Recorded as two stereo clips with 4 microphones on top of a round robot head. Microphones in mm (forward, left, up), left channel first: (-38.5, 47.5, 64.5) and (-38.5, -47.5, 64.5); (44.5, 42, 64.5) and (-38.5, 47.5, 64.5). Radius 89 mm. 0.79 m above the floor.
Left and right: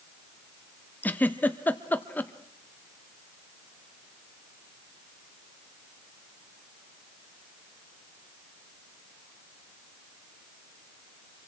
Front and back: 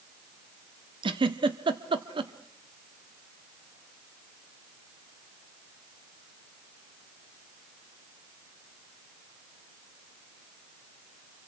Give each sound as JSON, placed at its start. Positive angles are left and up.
{"t": 1.0, "sound": "a giggle", "azimuth_deg": 160, "distance_m": 1.3}